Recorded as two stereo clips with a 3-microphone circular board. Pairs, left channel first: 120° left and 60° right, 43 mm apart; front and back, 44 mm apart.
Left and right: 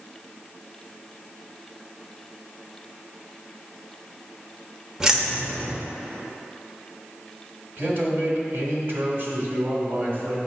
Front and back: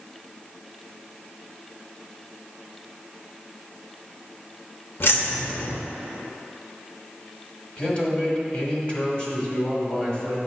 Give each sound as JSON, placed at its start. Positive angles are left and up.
{"t": 5.0, "sound": "keys jangling", "azimuth_deg": 15, "distance_m": 0.7}
{"t": 7.8, "sound": "a man speaking", "azimuth_deg": -55, "distance_m": 1.5}